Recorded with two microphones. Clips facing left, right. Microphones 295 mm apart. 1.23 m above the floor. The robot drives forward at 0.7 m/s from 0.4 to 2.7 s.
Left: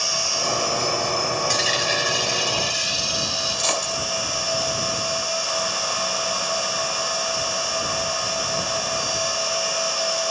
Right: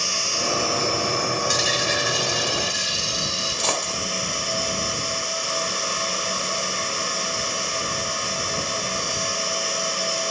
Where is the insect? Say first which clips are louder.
Even; 20° left (ahead or behind), 0.8 m; by 10.3 s 5° left (ahead or behind), 2.5 m.